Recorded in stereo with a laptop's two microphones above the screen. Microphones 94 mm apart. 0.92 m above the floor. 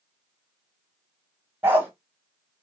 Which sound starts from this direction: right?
A dog barking, at 1.6 s.